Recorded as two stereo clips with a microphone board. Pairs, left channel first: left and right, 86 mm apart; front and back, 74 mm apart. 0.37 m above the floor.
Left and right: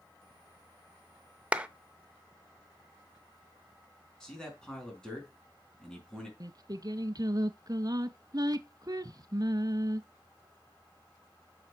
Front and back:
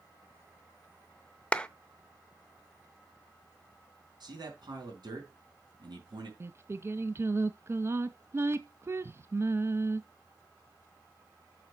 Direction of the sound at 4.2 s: 170° left.